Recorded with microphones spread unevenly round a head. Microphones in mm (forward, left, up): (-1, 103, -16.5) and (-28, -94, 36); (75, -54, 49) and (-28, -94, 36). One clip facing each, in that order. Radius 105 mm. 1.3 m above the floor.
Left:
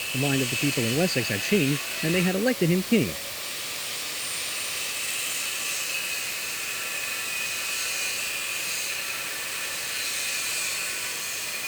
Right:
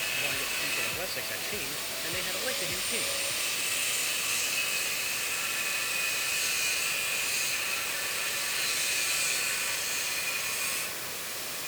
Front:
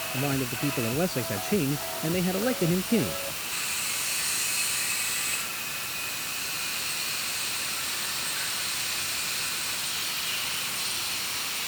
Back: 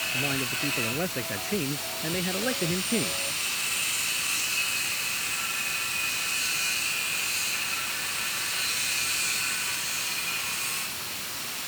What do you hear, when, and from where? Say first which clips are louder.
0.1 s a man speaking: left 17 dB, front 3 dB; 100° left